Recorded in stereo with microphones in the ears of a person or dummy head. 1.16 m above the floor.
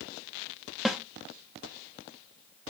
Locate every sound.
0.8 s a snare drum: centre (ahead or behind), 0.9 m